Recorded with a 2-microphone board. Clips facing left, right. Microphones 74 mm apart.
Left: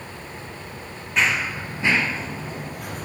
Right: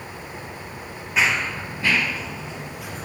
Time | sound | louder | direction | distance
1.2 | running footsteps | even | 5° right (ahead or behind) | 1.7 m